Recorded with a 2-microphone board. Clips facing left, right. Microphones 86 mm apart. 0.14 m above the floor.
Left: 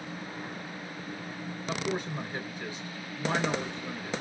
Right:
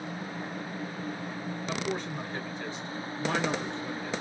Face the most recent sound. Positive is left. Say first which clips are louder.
# left 2 dB
turn(degrees=15)  # may be behind; listen again after turning